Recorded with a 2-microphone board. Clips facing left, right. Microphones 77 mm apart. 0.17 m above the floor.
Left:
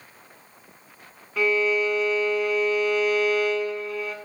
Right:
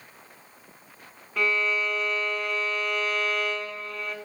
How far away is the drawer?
I don't hear a drawer.